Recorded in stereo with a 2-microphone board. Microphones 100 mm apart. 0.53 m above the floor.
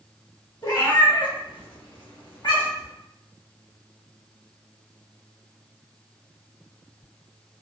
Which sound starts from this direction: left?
A cat meowing, at 0.6 s.